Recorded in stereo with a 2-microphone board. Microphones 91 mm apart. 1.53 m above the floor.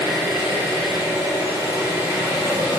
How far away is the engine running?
About 1.1 m.